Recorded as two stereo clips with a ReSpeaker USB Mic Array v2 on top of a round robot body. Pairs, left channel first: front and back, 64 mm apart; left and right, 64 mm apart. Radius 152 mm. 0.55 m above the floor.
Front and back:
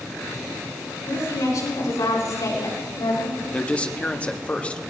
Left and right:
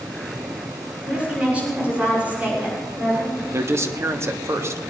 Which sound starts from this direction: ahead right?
A man speaking, at 3.5 s.